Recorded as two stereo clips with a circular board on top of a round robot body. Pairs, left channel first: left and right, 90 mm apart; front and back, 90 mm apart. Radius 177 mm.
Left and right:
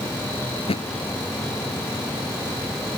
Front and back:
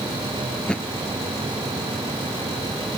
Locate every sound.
0.6 s a thud: 80° left